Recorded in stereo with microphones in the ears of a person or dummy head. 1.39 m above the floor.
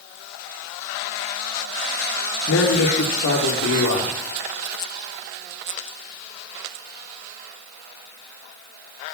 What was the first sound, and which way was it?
A man speaking, 60° left (ahead or behind).